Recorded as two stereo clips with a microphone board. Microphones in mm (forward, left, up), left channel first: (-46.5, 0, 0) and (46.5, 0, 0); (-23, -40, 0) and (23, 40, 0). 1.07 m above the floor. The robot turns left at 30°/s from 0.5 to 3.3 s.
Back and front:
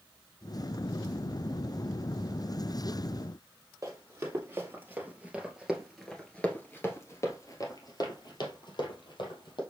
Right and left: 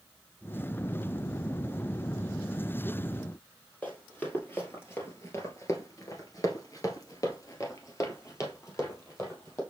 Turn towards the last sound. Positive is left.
turn(degrees=180)